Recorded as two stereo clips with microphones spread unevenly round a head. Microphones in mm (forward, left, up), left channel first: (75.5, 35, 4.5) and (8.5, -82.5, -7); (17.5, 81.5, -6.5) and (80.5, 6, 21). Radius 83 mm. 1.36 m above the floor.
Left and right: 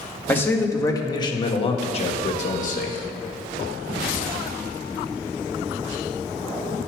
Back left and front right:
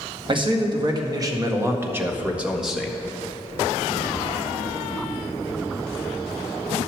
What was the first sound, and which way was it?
A man speaking, 15° right.